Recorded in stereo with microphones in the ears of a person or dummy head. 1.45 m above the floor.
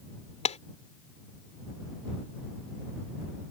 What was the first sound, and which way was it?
A clap, 35° left (ahead or behind).